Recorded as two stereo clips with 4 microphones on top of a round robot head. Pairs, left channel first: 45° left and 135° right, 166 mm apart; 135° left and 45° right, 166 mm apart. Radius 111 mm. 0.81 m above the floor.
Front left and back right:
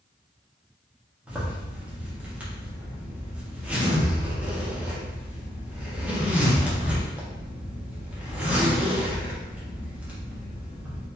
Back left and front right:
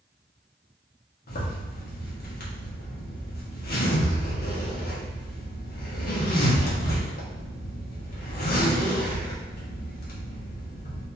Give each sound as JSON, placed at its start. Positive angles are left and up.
{"t": 1.3, "sound": "a zipper", "azimuth_deg": 145, "distance_m": 1.6}